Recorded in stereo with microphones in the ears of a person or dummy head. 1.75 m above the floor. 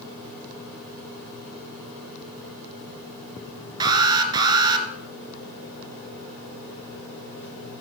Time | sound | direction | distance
3.8 | an alarm | 30° right (ahead or behind) | 1.3 m